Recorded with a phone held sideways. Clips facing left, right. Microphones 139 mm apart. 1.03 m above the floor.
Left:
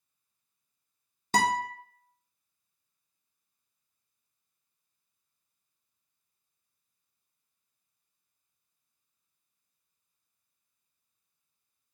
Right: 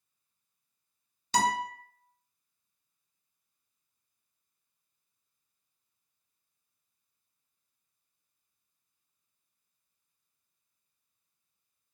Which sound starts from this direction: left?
A guitar, at 1.3 s.